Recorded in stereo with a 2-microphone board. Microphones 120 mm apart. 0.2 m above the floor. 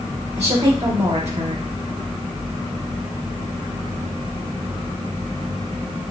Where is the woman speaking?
65° right (ahead or behind), 3 m.